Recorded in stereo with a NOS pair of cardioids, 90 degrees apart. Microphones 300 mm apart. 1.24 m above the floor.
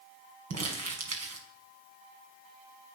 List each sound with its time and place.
0.5 s crumpling: 60° right, 6 m